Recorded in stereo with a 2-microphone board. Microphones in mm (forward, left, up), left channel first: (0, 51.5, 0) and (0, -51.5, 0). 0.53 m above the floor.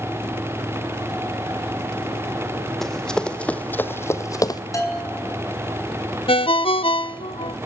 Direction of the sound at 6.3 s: 60° left (ahead or behind).